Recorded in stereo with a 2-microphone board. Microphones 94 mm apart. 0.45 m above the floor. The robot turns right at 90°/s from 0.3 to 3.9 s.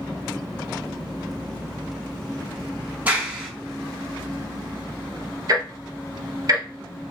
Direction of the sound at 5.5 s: 45° right (ahead or behind).